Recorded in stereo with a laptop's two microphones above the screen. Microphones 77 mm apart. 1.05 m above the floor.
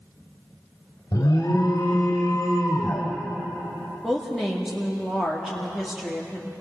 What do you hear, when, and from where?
1.1 s an alarm: 55° left (ahead or behind), 2.5 m
4.0 s a woman speaking: 5° right (ahead or behind), 2.5 m